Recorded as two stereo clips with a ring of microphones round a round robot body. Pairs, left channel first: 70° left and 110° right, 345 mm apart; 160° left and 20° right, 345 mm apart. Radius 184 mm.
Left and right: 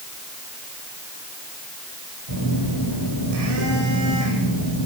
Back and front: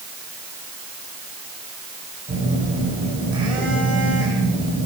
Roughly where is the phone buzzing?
Right.